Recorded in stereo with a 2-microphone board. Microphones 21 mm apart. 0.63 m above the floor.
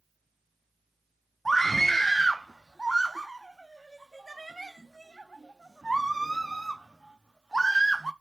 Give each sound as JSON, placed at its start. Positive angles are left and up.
{"t": 1.4, "sound": "a scream", "side_deg": 10, "distance_m": 0.6}